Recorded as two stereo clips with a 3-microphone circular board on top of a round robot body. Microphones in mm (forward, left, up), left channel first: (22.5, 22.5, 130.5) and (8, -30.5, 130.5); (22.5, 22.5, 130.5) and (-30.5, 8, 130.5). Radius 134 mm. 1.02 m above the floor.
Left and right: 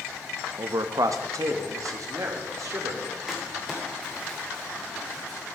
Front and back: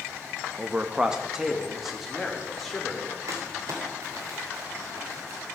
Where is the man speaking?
105° right, 0.8 m; by 3.2 s 70° right, 3.5 m.